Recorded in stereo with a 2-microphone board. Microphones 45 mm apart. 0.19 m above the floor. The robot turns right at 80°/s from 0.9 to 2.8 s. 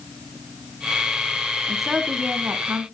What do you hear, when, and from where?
1.7 s a woman speaking: 170° left, 2 m; by 2.9 s 100° right, 2 m